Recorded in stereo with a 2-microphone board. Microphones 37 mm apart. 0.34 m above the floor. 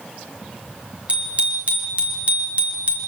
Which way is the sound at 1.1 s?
35° right (ahead or behind).